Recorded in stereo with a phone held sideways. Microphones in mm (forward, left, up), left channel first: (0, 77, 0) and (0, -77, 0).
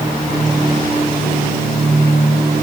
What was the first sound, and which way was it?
Only background noise.